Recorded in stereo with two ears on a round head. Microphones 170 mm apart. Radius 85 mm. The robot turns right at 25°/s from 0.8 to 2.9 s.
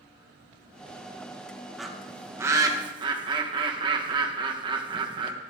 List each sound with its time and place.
1.8 s a bird: centre (ahead or behind), 1.4 m; by 5.3 s 25° right (ahead or behind), 1.4 m